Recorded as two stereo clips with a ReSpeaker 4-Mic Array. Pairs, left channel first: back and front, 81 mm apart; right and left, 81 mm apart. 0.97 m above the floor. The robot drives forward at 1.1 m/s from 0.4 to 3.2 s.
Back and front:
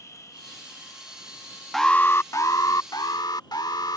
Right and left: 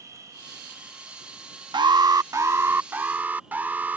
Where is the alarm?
90° left; by 4.0 s 155° left.